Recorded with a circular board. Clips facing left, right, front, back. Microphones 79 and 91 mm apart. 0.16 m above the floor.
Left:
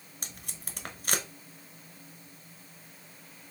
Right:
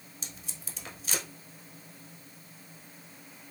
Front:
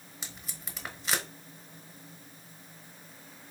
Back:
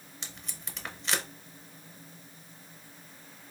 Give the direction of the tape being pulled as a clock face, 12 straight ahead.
9 o'clock.